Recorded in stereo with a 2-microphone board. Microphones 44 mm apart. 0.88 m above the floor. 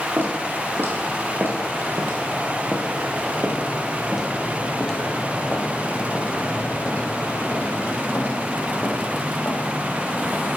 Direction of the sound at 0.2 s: 60° right (ahead or behind).